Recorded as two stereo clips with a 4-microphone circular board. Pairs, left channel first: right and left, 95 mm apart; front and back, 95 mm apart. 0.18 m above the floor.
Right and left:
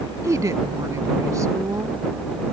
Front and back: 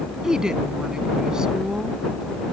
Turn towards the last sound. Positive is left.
turn(degrees=100)